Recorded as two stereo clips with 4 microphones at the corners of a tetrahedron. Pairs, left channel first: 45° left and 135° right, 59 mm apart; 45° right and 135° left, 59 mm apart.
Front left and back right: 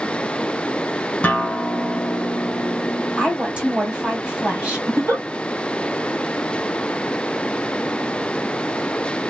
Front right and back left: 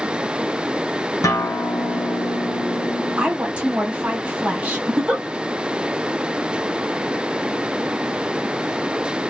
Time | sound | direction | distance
1.2 | a guitar | 20° right | 0.6 m
3.2 | a woman speaking | 175° left | 1.3 m
4.9 | a giggle | 150° right | 1.5 m